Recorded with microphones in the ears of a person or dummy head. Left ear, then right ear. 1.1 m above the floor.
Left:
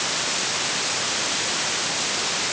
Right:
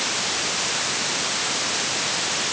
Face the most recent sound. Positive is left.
No sound to turn to.